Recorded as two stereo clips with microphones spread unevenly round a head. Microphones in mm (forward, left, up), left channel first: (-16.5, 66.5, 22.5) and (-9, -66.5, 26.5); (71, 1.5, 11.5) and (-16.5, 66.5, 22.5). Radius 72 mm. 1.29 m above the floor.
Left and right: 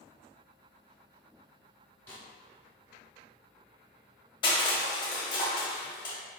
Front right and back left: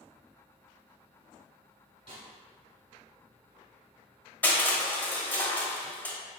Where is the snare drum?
165° left, 1.5 m.